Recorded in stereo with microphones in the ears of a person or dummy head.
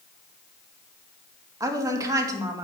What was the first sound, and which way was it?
A woman speaking, 20° right (ahead or behind).